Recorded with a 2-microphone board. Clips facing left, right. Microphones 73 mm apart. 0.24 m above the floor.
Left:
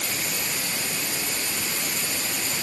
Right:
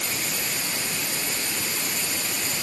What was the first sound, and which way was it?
Only background noise.